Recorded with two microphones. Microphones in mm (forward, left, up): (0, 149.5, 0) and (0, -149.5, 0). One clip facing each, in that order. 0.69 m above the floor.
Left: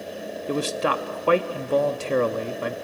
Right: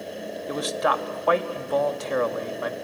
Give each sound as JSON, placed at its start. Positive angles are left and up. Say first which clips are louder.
{"t": 0.5, "sound": "a man speaking", "louder": "left 2 dB", "side_deg": 35, "distance_m": 0.7}